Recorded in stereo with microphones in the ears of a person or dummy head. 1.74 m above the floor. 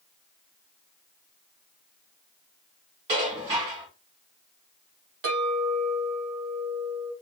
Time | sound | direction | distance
3.1 | dishes clattering | 35° right (ahead or behind) | 1.8 m
5.2 | a clink | 65° right (ahead or behind) | 1.9 m